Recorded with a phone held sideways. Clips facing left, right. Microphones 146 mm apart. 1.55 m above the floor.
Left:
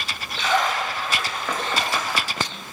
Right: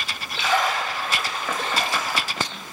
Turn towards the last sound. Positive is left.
turn(degrees=-10)  # may be behind; listen again after turning